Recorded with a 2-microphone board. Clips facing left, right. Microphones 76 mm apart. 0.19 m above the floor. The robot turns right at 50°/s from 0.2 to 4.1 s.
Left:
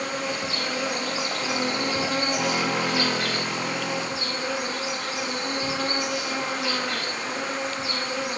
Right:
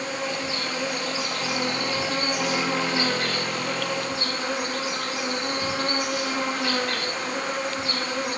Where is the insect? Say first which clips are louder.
Even; 75° left, 4.5 m; by 8.4 s 90° right, 4.5 m.